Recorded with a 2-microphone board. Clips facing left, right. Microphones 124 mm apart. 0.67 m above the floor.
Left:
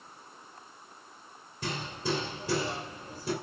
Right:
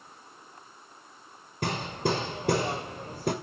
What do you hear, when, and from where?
1.6 s hammering: 60° right (ahead or behind), 2.5 m